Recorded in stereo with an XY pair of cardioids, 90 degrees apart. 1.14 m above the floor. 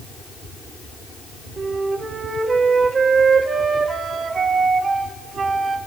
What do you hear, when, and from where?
1.6 s a flute: 50° right, 1.9 m